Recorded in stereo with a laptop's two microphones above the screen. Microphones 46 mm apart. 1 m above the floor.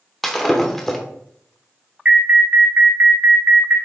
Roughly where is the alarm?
Right.